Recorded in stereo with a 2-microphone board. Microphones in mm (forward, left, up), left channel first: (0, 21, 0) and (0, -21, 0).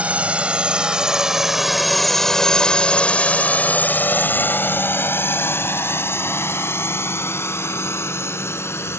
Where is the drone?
30° right (ahead or behind); by 9.0 s 85° left.